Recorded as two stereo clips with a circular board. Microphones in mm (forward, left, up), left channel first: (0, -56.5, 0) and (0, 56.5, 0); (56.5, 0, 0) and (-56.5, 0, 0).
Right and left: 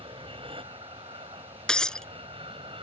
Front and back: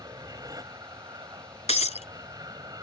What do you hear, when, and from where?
0.0 s an aircraft: 125° left
1.7 s breaking glass: 5° right